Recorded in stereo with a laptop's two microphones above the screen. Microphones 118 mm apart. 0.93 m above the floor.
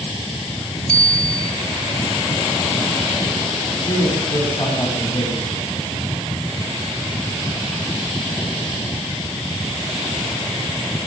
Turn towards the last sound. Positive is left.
turn(degrees=20)  # may be behind; listen again after turning